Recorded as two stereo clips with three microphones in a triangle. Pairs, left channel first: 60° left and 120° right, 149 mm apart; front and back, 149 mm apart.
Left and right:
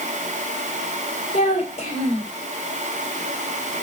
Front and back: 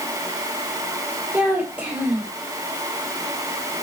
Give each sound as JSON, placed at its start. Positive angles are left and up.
{"t": 1.3, "sound": "a child speaking", "azimuth_deg": 100, "distance_m": 3.0}